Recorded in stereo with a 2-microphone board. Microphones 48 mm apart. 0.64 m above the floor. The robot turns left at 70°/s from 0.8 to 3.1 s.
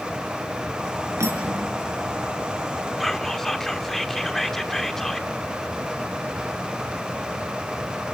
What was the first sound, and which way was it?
Cutlery clinking, 85° right.